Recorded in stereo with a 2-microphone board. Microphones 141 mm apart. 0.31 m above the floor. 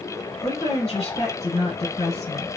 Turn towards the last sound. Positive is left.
turn(degrees=40)  # may be behind; listen again after turning